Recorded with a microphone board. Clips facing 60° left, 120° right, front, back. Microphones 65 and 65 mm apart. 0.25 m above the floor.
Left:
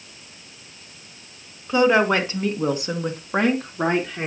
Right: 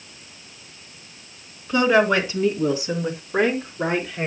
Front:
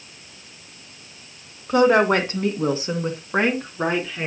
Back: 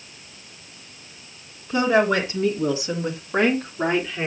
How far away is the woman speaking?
About 2.5 m.